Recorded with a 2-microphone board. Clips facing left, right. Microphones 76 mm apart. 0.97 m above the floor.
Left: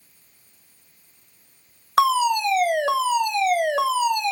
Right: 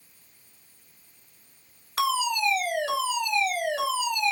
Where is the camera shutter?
No camera shutter in this recording.